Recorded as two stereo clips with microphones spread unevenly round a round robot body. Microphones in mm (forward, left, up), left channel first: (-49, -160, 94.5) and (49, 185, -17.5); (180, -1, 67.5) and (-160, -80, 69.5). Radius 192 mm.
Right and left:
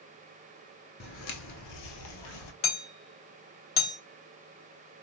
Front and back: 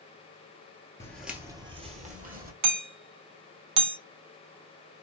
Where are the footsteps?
65° right, 0.6 m; by 2.5 s 100° right, 1.2 m.